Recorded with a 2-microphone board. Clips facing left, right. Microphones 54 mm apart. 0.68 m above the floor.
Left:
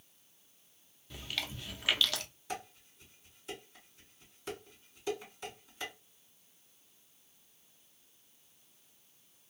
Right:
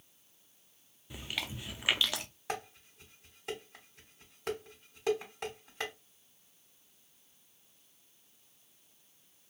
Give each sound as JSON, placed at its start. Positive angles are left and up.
{"t": 1.1, "sound": "chewing", "side_deg": -15, "distance_m": 0.5}
{"t": 2.5, "sound": "dishes clattering", "side_deg": -70, "distance_m": 1.7}